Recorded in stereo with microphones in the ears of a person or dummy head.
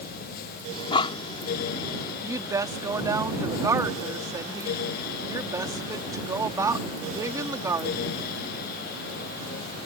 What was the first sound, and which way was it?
Breathing, 30° left (ahead or behind).